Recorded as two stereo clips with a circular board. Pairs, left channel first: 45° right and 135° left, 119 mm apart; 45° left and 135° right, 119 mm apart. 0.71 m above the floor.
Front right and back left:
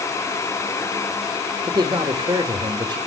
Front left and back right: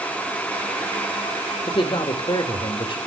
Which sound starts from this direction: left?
A man speaking, at 1.7 s.